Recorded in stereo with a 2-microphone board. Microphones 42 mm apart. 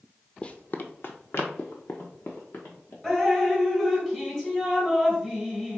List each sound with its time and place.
0.4 s running footsteps: 25° left (ahead or behind), 0.5 m; by 2.9 s 80° left, 1.8 m
3.0 s dripping: 10° left (ahead or behind), 1.6 m